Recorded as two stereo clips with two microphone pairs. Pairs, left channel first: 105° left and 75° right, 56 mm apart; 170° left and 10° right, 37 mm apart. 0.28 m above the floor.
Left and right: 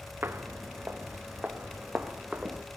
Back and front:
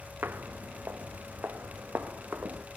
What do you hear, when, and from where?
0.2 s footsteps: 25° right, 1.2 m; by 2.6 s 5° right, 2.5 m